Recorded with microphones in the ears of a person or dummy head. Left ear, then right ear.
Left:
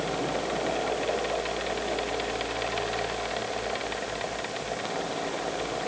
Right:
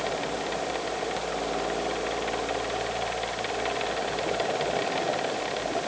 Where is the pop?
No pop in this recording.